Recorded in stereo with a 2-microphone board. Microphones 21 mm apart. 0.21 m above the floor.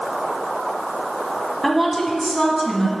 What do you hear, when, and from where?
1.6 s a woman speaking: 5° left (ahead or behind), 1.6 m; by 2.9 s 35° left (ahead or behind), 2 m